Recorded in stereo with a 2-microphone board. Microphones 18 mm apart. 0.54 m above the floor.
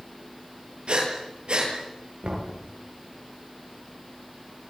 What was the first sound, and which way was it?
Breathing, 70° right (ahead or behind).